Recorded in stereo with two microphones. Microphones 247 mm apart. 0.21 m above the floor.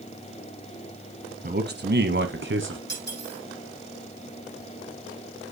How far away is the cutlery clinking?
About 6.5 m.